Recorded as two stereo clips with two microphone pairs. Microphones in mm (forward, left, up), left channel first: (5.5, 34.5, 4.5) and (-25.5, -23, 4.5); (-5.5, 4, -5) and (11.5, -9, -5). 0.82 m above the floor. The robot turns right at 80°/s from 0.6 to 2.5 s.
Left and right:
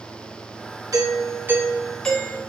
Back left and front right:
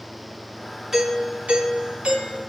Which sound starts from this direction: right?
A doorbell, at 0.9 s.